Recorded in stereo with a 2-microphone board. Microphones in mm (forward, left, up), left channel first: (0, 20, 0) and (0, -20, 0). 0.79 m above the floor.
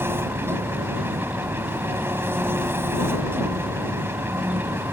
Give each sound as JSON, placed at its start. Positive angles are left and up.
{"t": 0.0, "sound": "an engine running", "side_deg": -80}